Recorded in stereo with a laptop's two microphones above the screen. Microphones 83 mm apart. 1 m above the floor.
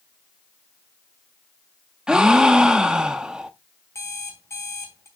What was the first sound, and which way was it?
A gasp, 10° right (ahead or behind).